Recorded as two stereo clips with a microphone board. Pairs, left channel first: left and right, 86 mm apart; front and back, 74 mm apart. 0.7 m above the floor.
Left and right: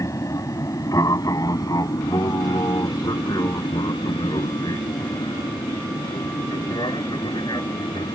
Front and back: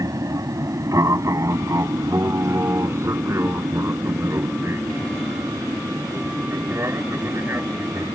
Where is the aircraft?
140° left; by 8.2 s 120° left.